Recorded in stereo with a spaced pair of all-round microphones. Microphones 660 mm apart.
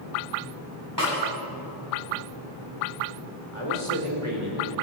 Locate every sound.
1.0 s a snare drum: 30° right (ahead or behind), 8.5 m
3.5 s a man speaking: 50° right (ahead or behind), 5 m